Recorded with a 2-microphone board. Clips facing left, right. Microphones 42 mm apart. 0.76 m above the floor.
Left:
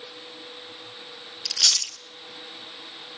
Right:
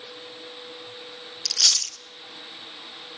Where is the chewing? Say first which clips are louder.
Even; 15° left (ahead or behind), 0.6 m.